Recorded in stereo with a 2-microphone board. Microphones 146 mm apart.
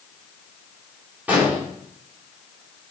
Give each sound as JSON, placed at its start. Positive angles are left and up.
{"t": 1.3, "sound": "an explosion", "side_deg": -10, "distance_m": 3.0}